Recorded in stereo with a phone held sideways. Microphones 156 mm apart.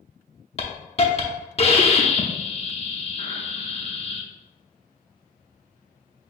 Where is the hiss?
40° left (ahead or behind), 0.7 m.